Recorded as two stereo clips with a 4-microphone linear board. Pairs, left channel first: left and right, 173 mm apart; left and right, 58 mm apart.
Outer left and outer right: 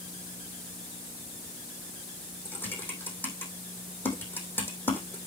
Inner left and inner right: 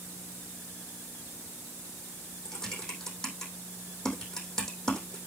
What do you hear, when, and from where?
2.5 s typing on a keyboard: 10° left (ahead or behind), 3 m